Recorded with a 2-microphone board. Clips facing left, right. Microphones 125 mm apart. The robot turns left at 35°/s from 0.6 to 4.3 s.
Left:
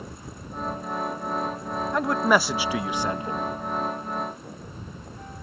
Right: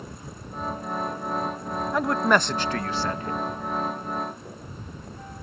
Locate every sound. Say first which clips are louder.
1.9 s a man speaking: even; centre (ahead or behind); by 3.5 s 20° left (ahead or behind)